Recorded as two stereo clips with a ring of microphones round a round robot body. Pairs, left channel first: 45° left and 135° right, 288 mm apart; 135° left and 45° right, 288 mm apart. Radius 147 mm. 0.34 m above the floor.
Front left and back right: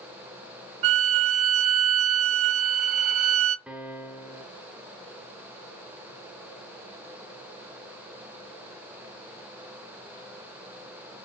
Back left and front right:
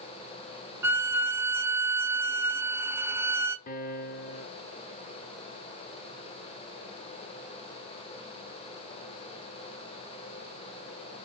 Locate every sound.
0.8 s a violin: 130° right, 0.8 m
3.7 s a piano: 140° left, 0.7 m